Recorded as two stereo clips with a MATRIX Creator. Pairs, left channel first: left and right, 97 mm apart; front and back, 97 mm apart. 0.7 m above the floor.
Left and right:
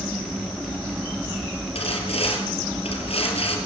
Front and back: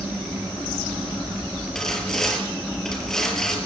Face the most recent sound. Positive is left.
turn(degrees=85)